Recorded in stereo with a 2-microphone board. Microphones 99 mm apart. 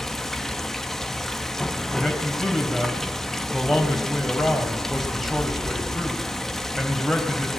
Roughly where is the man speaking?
Centre.